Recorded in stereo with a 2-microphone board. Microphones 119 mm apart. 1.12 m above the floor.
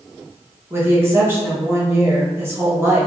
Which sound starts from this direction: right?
A woman speaking, at 0.7 s.